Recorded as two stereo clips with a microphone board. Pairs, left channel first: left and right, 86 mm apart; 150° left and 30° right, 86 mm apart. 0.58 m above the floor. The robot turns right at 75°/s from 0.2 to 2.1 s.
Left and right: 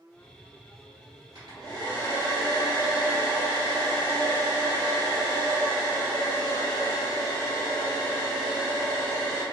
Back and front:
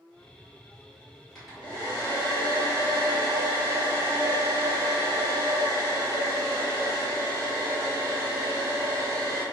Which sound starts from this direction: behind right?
A hair dryer, at 1.4 s.